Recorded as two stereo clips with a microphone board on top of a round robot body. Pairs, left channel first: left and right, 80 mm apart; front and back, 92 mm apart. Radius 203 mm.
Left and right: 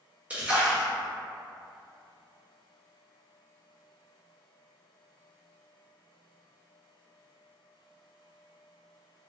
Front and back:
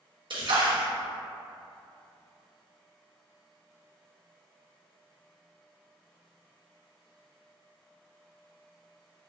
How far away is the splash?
About 1.3 m.